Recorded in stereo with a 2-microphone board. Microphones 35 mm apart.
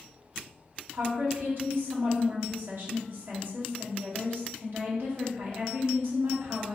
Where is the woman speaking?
60° right (ahead or behind), 1.5 m.